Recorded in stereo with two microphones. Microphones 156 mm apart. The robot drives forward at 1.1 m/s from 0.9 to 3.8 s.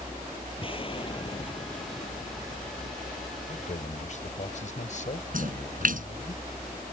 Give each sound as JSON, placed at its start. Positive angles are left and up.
{"t": 0.6, "sound": "an explosion", "side_deg": 35}
{"t": 3.5, "sound": "a man speaking", "side_deg": 55}
{"t": 5.3, "sound": "a splash", "side_deg": -60}